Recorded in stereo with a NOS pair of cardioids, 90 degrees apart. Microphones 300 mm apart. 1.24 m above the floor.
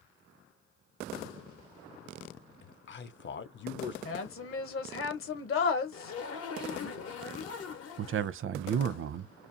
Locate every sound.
2.6 s a man speaking: 40° left, 0.6 m
4.0 s a woman speaking: 45° left, 0.9 m
5.9 s a zipper: 55° left, 0.8 m
8.0 s a man speaking: 45° right, 0.5 m